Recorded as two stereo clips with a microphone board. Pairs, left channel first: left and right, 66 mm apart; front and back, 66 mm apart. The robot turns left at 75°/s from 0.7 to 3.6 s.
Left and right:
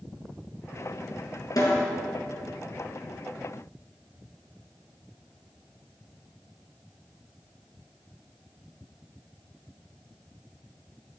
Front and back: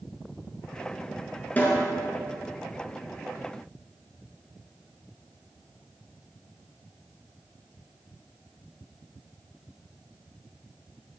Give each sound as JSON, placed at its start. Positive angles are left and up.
{"t": 1.6, "sound": "a snare drum", "azimuth_deg": 65, "distance_m": 3.0}